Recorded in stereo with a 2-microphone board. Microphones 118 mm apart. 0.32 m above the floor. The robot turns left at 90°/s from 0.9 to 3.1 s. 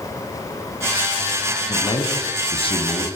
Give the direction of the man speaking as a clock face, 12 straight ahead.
7 o'clock.